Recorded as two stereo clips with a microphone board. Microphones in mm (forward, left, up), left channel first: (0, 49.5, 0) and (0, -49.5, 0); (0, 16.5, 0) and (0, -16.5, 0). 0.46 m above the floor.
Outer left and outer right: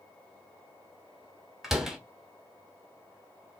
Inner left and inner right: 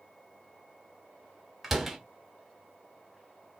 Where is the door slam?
5° right (ahead or behind), 2.5 m.